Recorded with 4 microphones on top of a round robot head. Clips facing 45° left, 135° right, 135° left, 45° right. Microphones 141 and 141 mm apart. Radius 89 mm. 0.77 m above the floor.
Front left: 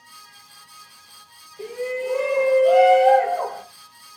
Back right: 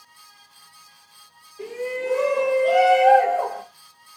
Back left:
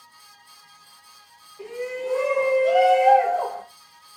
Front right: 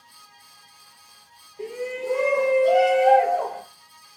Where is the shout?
20° right, 1.3 m; by 3.6 s 65° right, 1.7 m.